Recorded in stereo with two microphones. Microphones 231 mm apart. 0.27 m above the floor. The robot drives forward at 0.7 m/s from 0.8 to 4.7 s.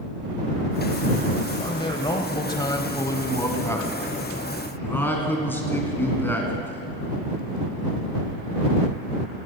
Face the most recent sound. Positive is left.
turn(degrees=10)  # may be behind; listen again after turning